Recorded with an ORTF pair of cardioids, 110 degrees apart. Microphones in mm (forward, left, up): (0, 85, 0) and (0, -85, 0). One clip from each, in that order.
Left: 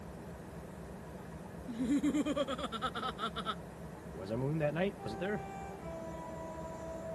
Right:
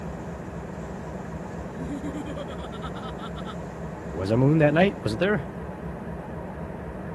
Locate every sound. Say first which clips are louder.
0.0 s an engine running: right 12 dB; 65° right
1.7 s laughter: left 3 dB; 20° left
4.1 s a man speaking: right 15 dB; 65° right